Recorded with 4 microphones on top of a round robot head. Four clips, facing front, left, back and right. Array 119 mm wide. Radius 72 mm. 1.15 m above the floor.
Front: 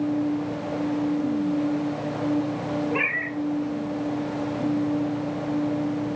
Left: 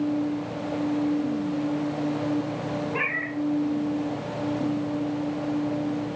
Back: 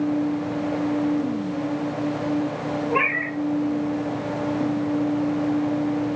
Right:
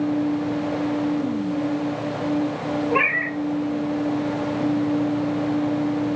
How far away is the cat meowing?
About 2 m.